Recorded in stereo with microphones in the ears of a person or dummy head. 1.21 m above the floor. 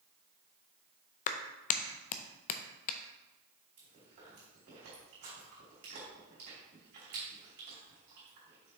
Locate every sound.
1.3 s a clap: 40° left (ahead or behind), 0.6 m
3.8 s chewing: 50° right (ahead or behind), 3.5 m